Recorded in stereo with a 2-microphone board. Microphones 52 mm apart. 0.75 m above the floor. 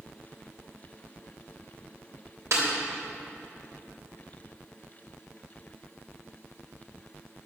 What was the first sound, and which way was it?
A snare drum, 60° right (ahead or behind).